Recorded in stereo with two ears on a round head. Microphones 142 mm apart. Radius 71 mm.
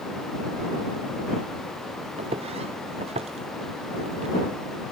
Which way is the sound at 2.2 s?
40° right (ahead or behind).